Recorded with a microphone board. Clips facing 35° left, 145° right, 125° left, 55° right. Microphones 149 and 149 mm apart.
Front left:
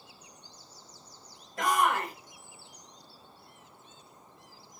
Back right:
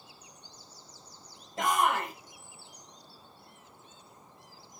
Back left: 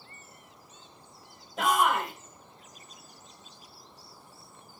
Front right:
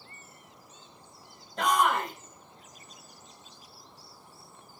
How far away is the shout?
About 1.0 m.